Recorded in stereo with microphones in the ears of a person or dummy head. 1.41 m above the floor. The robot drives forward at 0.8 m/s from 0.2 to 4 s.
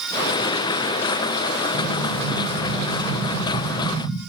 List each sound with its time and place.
1.7 s an explosion: 85° right, 7.5 m; by 4.2 s 80° right, 8 m